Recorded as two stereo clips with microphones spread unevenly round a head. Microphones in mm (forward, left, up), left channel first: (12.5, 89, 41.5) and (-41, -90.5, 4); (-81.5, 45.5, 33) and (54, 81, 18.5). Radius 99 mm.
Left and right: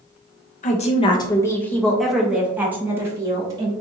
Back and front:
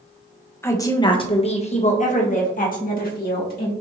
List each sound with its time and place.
0.6 s a woman speaking: 120° left, 0.8 m; by 3.7 s straight behind, 1.8 m